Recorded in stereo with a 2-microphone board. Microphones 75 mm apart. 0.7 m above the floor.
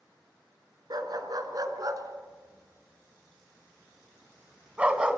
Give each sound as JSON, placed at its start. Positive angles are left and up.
{"t": 0.9, "sound": "a dog barking", "side_deg": -60, "distance_m": 4.0}